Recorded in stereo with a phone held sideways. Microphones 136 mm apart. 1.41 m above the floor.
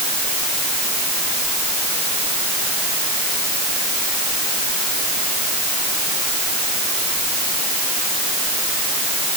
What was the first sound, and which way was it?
Only background noise.